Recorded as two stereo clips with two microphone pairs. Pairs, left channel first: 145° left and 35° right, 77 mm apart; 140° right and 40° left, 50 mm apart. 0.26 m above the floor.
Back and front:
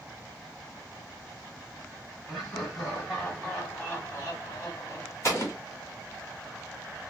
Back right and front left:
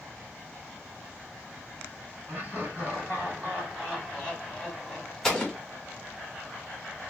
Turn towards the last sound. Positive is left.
turn(degrees=130)